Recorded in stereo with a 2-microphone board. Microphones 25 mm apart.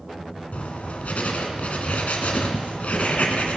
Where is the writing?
65° left (ahead or behind), 1.8 m.